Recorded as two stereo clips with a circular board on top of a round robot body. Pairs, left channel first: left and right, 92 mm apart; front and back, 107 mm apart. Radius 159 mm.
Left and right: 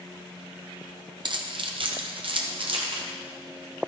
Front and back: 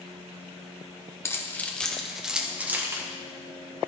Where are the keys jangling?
65° right, 1.1 m; by 3.0 s 115° right, 1.5 m.